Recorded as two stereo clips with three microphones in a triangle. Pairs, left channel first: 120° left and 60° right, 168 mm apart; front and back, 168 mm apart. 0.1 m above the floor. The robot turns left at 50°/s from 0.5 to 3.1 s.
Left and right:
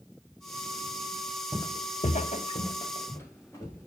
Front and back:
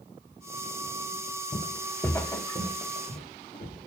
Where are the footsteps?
40° left, 0.5 m; by 3.9 s 50° left, 3.5 m.